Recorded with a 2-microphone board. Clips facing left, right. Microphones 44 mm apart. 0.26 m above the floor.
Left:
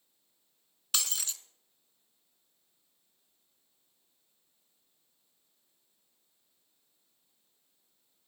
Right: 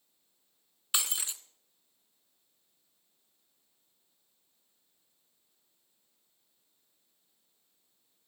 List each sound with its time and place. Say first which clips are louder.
0.9 s breaking glass: right 1 dB; 20° right (ahead or behind), 0.8 m